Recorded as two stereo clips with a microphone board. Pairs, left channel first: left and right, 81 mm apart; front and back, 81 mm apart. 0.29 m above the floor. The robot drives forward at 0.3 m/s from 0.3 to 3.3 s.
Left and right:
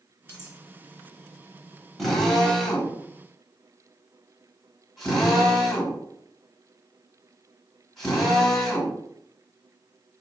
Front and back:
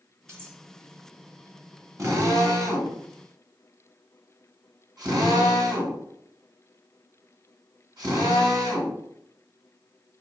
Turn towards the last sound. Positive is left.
turn(degrees=180)